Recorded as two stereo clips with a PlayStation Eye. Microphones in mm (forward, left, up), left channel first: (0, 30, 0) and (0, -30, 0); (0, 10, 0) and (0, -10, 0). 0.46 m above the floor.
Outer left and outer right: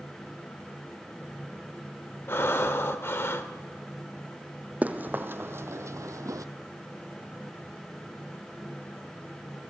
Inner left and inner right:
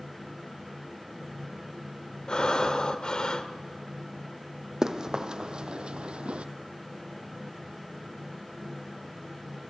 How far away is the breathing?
About 1.5 m.